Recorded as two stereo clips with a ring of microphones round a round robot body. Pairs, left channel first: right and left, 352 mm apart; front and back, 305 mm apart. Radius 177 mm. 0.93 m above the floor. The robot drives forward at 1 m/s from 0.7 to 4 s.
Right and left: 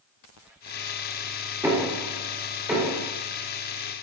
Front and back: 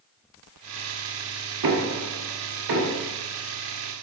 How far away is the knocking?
About 1.9 m.